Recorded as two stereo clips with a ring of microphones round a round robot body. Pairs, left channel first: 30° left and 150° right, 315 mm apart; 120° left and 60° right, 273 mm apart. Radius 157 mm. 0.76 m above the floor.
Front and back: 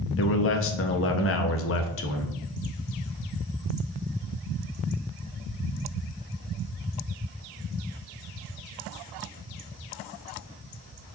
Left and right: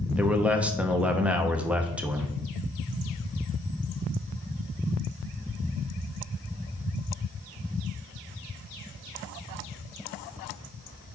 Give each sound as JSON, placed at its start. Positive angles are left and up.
{"t": 0.2, "sound": "a man speaking", "azimuth_deg": 25, "distance_m": 0.9}